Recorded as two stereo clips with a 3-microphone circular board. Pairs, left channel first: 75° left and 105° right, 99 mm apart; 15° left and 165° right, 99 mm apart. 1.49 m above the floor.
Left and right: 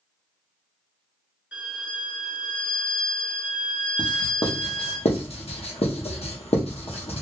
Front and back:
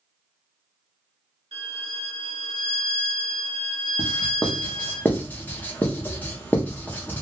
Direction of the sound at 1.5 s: Straight behind.